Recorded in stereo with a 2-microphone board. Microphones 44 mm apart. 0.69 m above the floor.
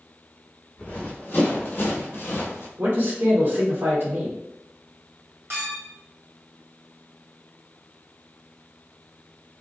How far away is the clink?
About 1.8 m.